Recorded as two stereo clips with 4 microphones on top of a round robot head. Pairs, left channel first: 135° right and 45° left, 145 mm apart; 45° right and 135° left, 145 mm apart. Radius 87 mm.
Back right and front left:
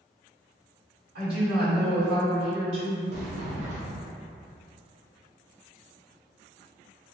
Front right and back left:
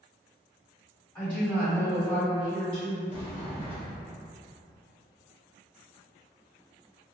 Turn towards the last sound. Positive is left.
turn(degrees=0)